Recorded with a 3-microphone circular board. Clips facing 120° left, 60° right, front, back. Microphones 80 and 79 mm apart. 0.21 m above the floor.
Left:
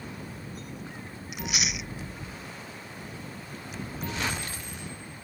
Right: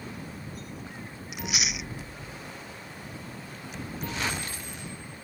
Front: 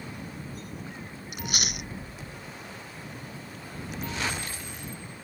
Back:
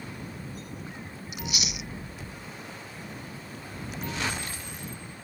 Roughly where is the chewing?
Ahead left.